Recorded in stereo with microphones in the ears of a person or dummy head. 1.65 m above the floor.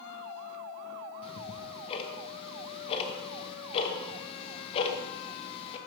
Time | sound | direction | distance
1.2 | ticking | 35° left (ahead or behind) | 0.7 m